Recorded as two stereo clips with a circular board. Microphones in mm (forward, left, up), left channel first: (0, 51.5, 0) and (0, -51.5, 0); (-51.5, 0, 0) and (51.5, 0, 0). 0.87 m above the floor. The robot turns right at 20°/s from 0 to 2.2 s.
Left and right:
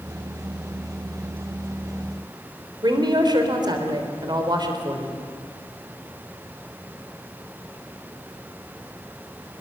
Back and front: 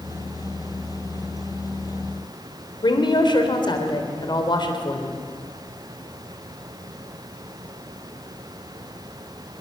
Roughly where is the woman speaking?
Behind right.